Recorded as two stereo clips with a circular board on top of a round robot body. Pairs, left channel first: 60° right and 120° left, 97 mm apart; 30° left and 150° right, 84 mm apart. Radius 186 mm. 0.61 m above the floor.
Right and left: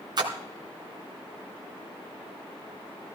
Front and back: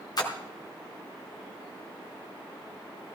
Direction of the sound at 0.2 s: 75° left.